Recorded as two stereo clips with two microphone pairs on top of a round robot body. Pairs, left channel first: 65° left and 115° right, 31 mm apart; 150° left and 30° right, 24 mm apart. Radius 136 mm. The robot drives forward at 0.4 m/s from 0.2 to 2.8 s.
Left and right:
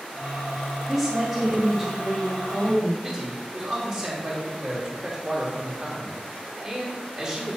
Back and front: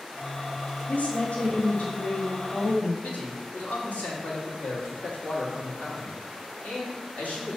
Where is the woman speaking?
160° left, 1.4 m; by 2.9 s 165° left, 2 m.